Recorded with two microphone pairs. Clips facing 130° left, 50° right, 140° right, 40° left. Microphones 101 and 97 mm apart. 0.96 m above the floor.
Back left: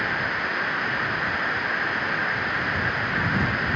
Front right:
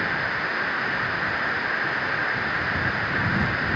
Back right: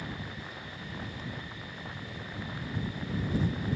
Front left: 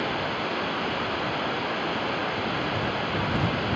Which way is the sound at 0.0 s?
40° left.